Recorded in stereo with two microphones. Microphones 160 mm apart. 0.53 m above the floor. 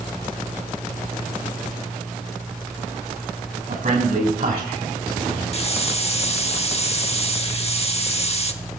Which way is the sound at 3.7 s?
65° right (ahead or behind).